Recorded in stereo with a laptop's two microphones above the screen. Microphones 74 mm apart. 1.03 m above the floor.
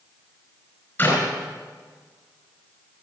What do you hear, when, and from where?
1.0 s a clap: 30° left (ahead or behind), 4.5 m